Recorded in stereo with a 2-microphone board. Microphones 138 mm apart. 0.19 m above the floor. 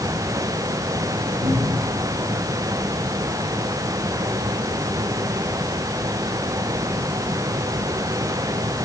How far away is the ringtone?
I don't hear a ringtone.